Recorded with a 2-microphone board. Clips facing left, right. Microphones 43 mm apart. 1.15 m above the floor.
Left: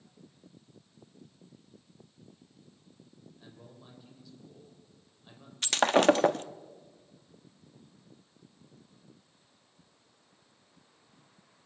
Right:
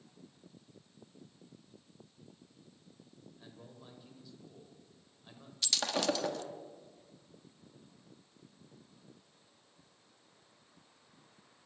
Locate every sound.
3.4 s a man speaking: centre (ahead or behind), 5.5 m
5.6 s breaking glass: 50° left (ahead or behind), 0.8 m